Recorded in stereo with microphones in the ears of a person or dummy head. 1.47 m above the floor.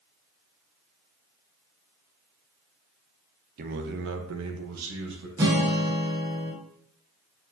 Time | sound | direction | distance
3.6 | a man speaking | 50° right (ahead or behind) | 0.7 m
5.4 | a guitar | 15° right (ahead or behind) | 0.7 m